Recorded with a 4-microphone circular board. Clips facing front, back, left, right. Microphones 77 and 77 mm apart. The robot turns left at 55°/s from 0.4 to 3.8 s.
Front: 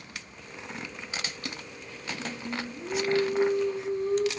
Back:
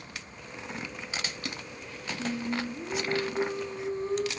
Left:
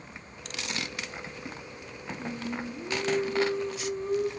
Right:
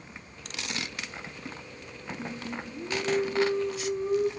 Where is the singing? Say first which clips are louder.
Back 5 dB, left 3 dB; 90° right, 1.2 m; by 4.3 s 175° right, 1.2 m.